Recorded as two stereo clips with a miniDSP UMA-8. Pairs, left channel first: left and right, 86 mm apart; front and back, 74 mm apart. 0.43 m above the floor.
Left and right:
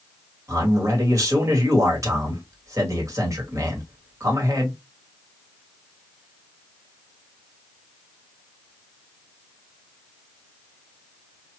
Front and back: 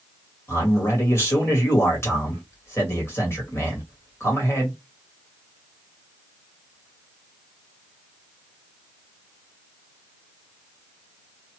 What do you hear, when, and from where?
0.5 s a man speaking: 45° right, 1.9 m